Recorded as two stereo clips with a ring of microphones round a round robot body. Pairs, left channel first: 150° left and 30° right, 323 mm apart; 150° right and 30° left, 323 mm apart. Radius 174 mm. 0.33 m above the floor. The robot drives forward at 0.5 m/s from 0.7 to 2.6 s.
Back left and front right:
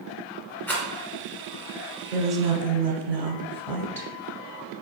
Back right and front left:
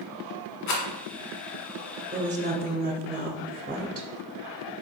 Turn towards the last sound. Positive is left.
turn(degrees=70)